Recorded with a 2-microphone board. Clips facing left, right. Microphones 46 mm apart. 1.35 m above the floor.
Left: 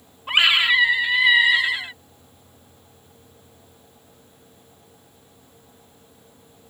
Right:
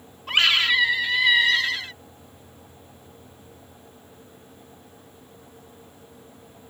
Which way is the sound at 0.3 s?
15° left (ahead or behind).